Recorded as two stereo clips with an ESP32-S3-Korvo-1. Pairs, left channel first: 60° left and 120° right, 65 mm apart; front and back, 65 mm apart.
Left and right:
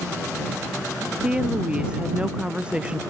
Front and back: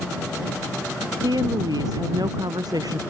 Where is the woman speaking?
165° left.